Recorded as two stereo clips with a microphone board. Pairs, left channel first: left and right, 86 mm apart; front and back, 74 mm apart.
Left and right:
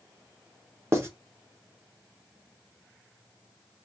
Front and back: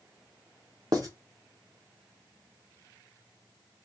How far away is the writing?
About 0.9 m.